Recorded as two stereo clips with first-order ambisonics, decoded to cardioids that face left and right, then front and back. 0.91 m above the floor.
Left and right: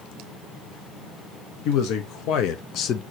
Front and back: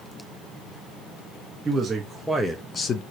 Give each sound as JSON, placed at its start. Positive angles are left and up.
{"t": 1.6, "sound": "a man speaking", "azimuth_deg": 105, "distance_m": 1.0}